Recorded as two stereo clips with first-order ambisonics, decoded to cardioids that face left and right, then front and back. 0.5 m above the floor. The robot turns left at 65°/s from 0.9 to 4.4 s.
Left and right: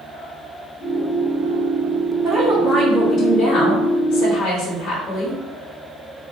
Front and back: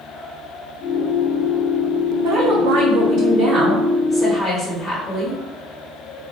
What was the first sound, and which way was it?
A woman speaking, 165° right.